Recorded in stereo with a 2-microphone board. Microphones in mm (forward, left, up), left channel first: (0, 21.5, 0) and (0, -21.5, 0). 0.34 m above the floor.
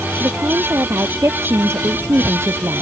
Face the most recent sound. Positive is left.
turn(degrees=-80)